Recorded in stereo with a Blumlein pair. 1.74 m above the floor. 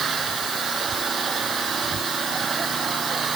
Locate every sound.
0.0 s an engine running: 20° right